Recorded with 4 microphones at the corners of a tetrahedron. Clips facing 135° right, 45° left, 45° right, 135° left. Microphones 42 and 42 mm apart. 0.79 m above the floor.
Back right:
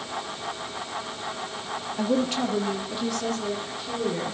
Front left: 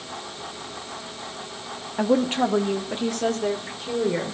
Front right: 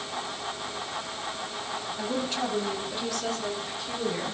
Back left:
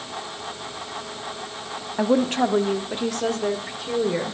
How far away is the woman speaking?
About 1.3 m.